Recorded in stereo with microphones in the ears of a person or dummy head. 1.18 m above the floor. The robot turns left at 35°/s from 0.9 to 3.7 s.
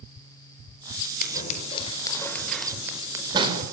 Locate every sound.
1.2 s scissors: 50° left (ahead or behind), 5 m; by 3.6 s 35° right (ahead or behind), 5 m